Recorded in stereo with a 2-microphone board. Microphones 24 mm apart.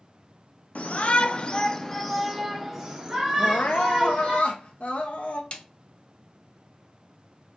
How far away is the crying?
About 0.7 m.